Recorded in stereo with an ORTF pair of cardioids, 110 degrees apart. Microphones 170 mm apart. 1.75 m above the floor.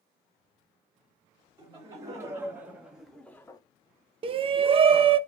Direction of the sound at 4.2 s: 35° right.